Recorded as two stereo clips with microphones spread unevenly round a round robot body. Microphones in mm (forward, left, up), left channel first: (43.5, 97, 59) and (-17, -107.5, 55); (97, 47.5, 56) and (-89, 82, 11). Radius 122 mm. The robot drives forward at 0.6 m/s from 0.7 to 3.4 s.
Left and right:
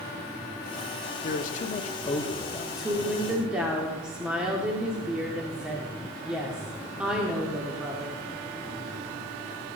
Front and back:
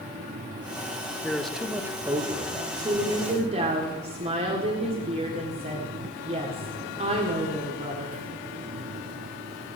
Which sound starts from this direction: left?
A man speaking, at 1.2 s.